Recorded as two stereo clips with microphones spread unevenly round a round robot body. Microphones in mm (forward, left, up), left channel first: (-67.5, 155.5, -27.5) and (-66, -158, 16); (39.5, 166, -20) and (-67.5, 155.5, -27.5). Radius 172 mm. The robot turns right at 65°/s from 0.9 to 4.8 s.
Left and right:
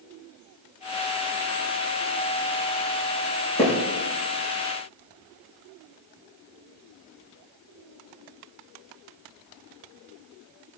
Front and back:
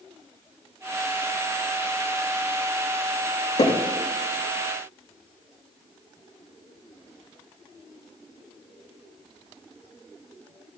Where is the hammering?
5° left, 7 m; by 3.8 s 15° left, 7 m.